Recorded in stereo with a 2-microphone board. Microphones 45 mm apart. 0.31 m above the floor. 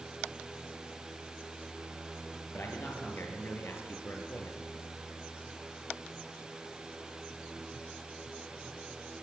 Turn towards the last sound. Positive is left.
turn(degrees=60)  # may be behind; listen again after turning